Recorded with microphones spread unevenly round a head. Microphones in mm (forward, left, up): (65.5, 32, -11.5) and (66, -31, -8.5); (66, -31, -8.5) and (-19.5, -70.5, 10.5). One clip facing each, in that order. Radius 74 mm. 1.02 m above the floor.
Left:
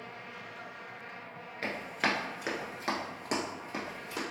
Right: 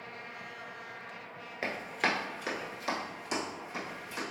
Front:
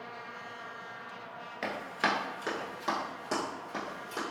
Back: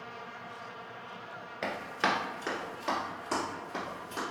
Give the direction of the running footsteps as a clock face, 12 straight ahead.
4 o'clock.